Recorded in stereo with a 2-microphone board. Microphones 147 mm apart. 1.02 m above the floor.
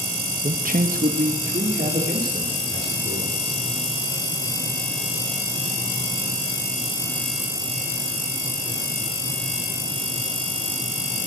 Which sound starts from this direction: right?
A man speaking, at 0.4 s.